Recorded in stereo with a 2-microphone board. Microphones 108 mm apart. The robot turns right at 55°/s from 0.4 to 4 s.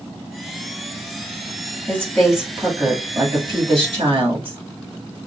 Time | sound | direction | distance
1.9 | a woman speaking | 160° left | 2 m